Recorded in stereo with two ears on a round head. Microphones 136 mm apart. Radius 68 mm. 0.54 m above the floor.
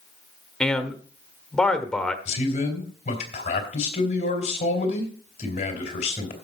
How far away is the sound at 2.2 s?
About 3.5 m.